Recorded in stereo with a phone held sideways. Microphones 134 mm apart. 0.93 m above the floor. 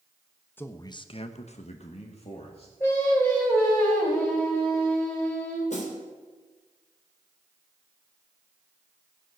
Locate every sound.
0.6 s a man speaking: 15° left (ahead or behind), 1.1 m; by 2.7 s 45° left (ahead or behind), 2 m
2.8 s singing: 15° left (ahead or behind), 4.5 m
5.7 s a snare drum: 60° left (ahead or behind), 3.5 m